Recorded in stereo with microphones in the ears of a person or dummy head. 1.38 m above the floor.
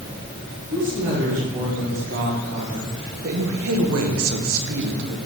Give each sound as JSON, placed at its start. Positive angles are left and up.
{"t": 0.7, "sound": "a woman speaking", "side_deg": -35, "distance_m": 2.0}